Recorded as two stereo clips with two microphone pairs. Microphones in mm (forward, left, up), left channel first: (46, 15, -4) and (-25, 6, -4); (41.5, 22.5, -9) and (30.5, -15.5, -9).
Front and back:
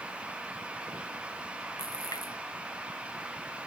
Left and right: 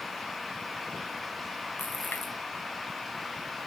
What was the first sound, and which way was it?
A splash, 35° left.